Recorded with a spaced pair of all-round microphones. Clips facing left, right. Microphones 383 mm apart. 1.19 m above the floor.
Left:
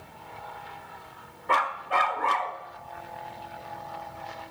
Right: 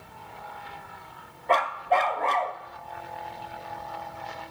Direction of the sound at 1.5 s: 20° left (ahead or behind).